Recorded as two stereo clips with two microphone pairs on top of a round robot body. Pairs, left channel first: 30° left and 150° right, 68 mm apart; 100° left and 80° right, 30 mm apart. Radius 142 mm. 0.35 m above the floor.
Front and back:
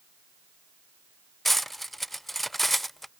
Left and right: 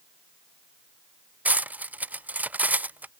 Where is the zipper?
I don't hear a zipper.